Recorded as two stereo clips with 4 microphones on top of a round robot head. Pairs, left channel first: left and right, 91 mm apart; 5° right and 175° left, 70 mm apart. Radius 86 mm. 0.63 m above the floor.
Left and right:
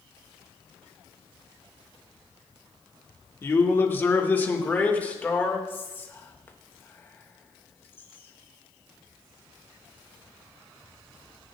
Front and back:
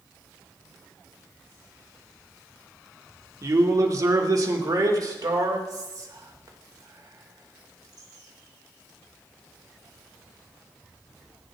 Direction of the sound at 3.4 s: 145° left.